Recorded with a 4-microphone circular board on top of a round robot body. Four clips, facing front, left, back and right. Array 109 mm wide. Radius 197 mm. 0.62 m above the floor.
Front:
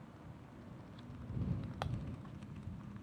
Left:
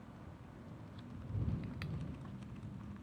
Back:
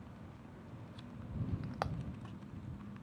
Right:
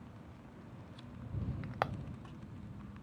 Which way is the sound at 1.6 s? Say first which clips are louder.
Right 10 dB, back 4 dB; 105° right.